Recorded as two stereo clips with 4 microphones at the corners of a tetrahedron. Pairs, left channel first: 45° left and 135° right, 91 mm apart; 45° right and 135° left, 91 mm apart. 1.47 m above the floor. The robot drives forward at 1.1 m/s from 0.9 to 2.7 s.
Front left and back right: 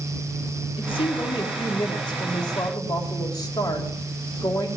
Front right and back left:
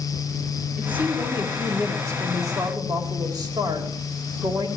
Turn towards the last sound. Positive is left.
turn(degrees=90)